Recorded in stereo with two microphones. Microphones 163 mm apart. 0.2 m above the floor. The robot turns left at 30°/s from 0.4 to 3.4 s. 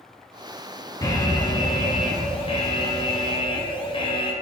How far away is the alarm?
About 0.9 m.